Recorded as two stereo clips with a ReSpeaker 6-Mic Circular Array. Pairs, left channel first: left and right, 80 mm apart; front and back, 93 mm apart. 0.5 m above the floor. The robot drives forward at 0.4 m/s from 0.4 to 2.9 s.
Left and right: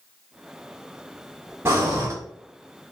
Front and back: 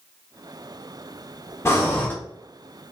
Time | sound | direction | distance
1.6 | breathing | 50° right | 1.0 m